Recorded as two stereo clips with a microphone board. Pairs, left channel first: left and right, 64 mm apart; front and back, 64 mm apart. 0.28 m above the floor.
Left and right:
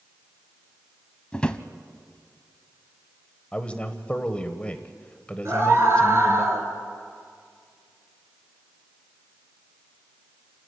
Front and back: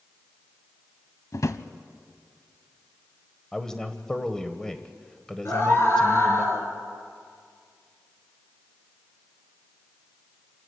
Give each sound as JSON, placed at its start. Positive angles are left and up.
{"t": 1.3, "sound": "a drawer", "azimuth_deg": 20, "distance_m": 0.8}
{"t": 3.5, "sound": "a man speaking", "azimuth_deg": 60, "distance_m": 1.2}
{"t": 5.5, "sound": "a scream", "azimuth_deg": -45, "distance_m": 4.0}